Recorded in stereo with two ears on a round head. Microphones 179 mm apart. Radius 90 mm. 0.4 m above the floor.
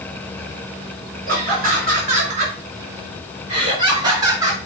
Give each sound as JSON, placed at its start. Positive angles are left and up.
{"t": 1.3, "sound": "laughter", "side_deg": -40, "distance_m": 4.5}